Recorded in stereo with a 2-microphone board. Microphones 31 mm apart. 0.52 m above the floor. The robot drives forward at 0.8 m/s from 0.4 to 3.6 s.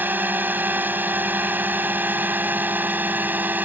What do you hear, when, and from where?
0.0 s a drone: 70° right (ahead or behind); by 3.7 s 65° right (ahead or behind)